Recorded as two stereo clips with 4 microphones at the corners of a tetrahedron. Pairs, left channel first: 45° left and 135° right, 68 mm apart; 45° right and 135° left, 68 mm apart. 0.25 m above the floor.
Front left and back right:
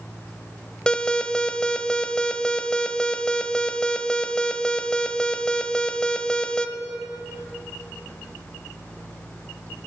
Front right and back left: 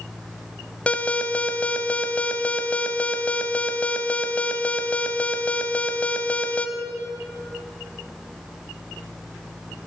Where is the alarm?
10° right, 0.8 m.